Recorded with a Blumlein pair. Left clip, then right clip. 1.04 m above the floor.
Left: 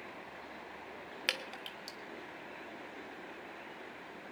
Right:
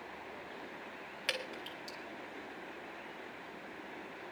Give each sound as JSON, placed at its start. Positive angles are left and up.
{"t": 1.3, "sound": "dripping", "azimuth_deg": 20, "distance_m": 1.2}